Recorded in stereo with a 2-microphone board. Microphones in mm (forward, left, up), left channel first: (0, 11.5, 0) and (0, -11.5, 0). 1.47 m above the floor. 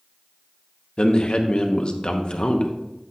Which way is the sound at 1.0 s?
40° left (ahead or behind).